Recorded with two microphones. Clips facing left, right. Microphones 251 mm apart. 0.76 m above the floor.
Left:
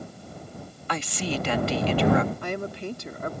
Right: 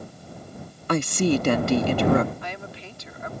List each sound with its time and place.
0.9 s a woman speaking: 50° right (ahead or behind)
2.4 s a woman speaking: 50° left (ahead or behind)